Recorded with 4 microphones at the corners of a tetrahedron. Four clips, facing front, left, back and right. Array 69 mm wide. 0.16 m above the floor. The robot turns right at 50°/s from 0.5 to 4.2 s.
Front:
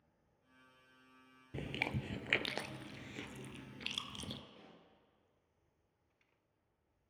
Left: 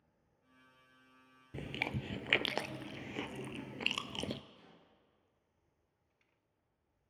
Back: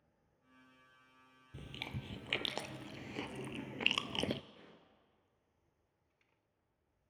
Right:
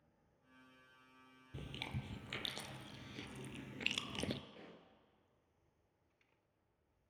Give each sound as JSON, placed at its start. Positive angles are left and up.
{"t": 1.5, "sound": "chewing", "azimuth_deg": 40, "distance_m": 0.5}
{"t": 4.5, "sound": "a pop", "azimuth_deg": -85, "distance_m": 2.0}